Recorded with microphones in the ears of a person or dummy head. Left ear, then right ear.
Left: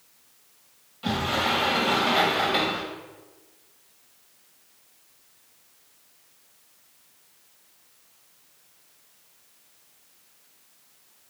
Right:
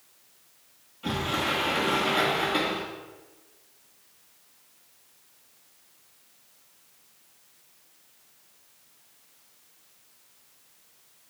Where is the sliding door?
30° left (ahead or behind), 1.8 m.